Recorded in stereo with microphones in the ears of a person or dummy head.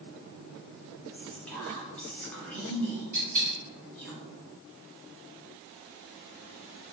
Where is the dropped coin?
45° right (ahead or behind), 1.5 m.